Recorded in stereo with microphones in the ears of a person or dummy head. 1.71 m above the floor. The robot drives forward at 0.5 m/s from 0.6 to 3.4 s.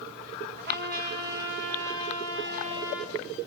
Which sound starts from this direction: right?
A trumpet, at 0.6 s.